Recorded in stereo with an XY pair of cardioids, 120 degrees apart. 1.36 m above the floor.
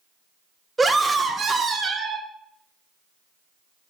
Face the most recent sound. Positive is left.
turn(degrees=-50)